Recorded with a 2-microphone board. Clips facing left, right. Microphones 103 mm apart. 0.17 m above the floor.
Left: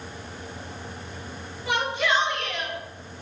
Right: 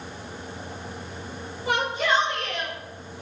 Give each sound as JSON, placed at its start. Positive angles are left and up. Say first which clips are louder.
{"t": 1.7, "sound": "a shout", "louder": "right 1 dB", "side_deg": -40, "distance_m": 3.5}